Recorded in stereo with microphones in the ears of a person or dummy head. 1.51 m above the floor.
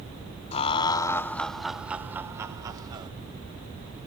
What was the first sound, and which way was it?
Laughter, 35° left (ahead or behind).